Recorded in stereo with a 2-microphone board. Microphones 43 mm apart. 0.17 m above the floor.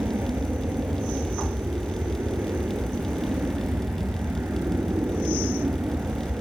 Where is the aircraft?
65° right (ahead or behind); by 6.4 s 50° right (ahead or behind).